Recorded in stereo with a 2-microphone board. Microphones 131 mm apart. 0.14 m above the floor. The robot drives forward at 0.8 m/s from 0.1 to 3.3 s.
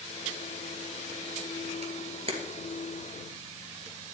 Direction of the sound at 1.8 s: 50° right (ahead or behind).